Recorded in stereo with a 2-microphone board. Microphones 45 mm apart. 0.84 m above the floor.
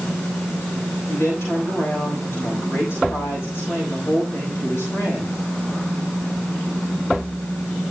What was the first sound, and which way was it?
A woman speaking, 75° left (ahead or behind).